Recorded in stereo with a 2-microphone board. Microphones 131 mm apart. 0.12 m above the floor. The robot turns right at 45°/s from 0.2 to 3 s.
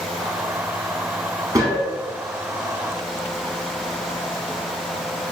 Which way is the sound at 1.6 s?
25° right (ahead or behind).